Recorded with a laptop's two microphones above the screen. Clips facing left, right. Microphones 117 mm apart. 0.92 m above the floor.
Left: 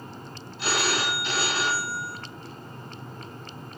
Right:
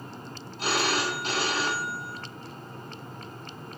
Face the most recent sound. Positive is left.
turn(degrees=-45)  # may be behind; listen again after turning